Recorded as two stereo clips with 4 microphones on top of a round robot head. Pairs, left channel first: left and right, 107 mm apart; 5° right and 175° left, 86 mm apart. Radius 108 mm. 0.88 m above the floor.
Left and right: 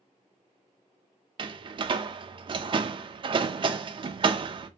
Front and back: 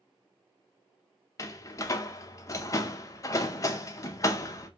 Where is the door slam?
55° right, 0.5 m.